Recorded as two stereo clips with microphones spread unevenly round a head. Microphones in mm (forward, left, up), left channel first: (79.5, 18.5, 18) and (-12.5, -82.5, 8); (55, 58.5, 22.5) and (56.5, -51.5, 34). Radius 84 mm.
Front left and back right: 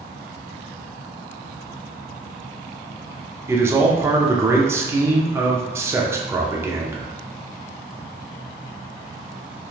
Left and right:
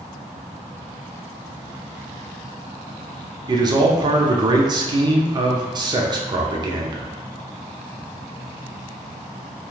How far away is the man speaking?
About 0.5 m.